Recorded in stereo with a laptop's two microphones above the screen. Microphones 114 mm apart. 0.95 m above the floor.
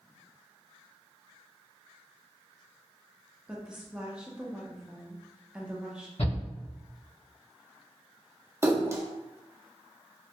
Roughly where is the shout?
Left.